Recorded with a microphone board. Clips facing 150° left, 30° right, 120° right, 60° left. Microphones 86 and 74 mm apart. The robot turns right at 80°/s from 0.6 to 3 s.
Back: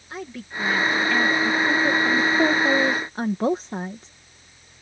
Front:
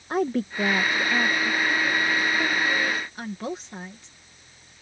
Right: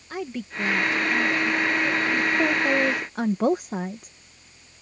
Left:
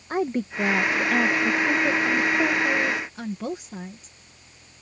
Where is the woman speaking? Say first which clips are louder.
Front 10 dB, left 6 dB; 10° left; by 4.1 s 160° right.